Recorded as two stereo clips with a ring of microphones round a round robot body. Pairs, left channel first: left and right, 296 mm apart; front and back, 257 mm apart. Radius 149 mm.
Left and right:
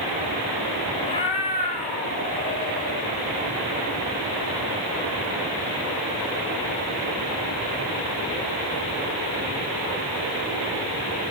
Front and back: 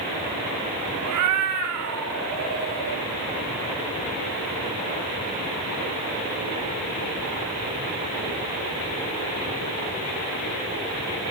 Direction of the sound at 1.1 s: 165° left.